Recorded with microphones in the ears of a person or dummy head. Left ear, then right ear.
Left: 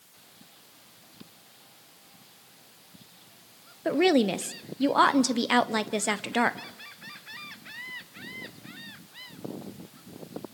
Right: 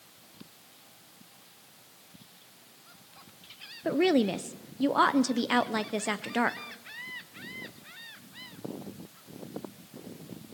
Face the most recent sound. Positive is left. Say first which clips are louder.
# left 3 dB
turn(degrees=5)  # may be behind; listen again after turning